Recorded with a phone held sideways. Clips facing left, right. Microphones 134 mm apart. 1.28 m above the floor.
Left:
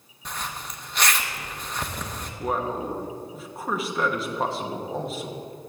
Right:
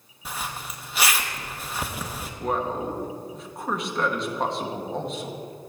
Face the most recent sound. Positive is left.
turn(degrees=5)  # may be behind; listen again after turning